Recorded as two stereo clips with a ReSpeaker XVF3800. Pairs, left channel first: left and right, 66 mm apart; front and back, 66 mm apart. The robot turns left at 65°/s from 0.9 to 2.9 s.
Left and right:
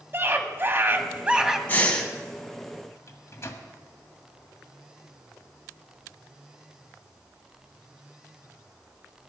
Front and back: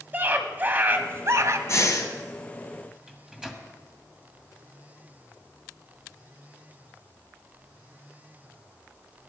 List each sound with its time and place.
0.1 s a scream: 130° right, 1.5 m; by 1.6 s 175° right, 1.5 m
1.7 s breathing: 30° left, 1.7 m; by 2.1 s 5° left, 1.7 m
3.1 s a microwave: 105° left, 1.6 m